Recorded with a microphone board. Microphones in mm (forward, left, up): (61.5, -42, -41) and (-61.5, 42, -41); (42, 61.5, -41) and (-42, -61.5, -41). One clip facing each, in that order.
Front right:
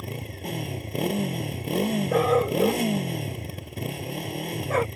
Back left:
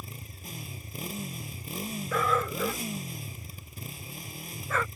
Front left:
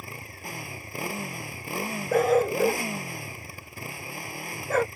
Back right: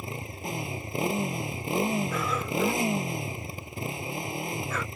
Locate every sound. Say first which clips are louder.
0.0 s a motorcycle: front right 11 dB, back right 5 dB; 55° right
2.1 s a dog barking: front right 7 dB, front left 9 dB; 15° left